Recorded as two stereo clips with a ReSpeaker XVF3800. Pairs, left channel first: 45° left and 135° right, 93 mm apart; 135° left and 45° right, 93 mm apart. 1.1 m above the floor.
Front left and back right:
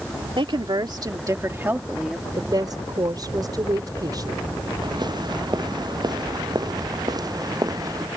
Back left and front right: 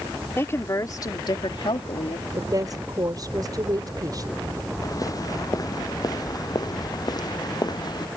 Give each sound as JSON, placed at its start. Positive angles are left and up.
{"t": 0.4, "sound": "a woman speaking", "azimuth_deg": -160}
{"t": 2.4, "sound": "a woman speaking", "azimuth_deg": -90}
{"t": 4.8, "sound": "footsteps", "azimuth_deg": -175}